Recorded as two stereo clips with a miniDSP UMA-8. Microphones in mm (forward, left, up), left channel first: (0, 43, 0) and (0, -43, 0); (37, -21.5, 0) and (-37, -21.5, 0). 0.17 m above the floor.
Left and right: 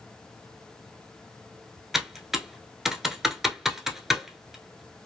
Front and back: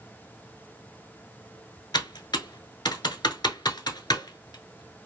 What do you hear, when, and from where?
1.9 s typing on a keyboard: 5° right, 0.7 m